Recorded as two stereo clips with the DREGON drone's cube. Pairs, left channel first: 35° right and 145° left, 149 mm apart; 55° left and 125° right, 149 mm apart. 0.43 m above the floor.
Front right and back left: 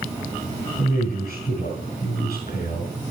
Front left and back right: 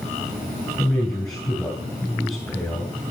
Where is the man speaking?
20° right, 3.5 m.